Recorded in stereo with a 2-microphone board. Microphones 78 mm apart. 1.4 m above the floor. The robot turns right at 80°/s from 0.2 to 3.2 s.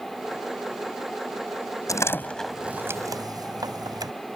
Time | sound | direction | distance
1.9 | a door slam | 45° left (ahead or behind) | ?